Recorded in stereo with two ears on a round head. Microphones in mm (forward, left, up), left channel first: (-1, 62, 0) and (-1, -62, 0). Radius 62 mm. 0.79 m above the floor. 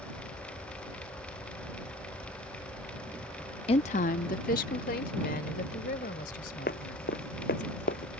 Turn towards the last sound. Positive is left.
turn(degrees=70)  # may be behind; listen again after turning